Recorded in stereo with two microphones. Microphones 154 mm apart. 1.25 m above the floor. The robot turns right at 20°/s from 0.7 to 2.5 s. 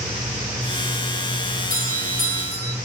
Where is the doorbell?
80° right, 4.5 m; by 2.8 s 75° right (ahead or behind), 4.5 m.